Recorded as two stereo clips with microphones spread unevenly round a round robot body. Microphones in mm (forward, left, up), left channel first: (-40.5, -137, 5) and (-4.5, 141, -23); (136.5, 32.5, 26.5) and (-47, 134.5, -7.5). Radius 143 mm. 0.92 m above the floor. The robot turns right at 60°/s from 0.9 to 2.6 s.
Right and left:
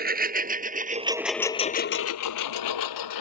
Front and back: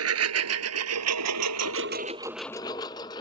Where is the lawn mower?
145° left; by 3.2 s 105° right.